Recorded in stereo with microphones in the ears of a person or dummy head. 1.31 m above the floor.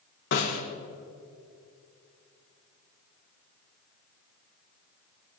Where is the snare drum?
55° left (ahead or behind), 2.5 m.